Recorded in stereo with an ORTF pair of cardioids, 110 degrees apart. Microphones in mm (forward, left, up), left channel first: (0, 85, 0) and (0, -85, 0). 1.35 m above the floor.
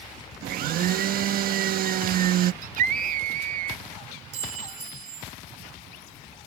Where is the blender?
60° right.